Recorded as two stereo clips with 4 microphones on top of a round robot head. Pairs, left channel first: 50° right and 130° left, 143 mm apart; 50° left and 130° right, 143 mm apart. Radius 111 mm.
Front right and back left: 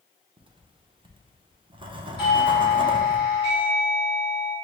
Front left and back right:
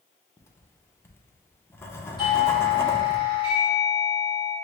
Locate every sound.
0.4 s writing: 110° left, 0.6 m
2.2 s a doorbell: 5° right, 1.8 m